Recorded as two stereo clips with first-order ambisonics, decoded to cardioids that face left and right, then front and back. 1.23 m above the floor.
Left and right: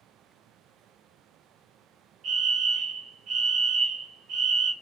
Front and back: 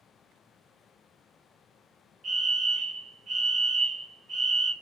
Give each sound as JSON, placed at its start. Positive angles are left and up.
{"t": 2.2, "sound": "a fire alarm", "azimuth_deg": -125, "distance_m": 1.1}